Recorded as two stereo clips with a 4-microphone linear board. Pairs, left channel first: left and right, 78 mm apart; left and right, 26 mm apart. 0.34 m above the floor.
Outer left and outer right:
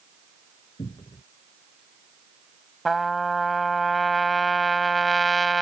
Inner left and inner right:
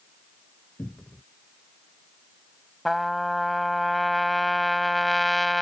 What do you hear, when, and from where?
0.8 s a cupboard door: 80° left
2.9 s a trumpet: centre (ahead or behind)